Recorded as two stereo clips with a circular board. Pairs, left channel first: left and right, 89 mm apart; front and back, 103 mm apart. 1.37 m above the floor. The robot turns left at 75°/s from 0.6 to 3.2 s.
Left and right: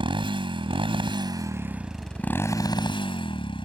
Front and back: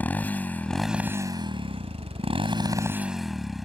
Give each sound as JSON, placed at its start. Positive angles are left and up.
{"t": 0.0, "sound": "a motorcycle", "azimuth_deg": -75}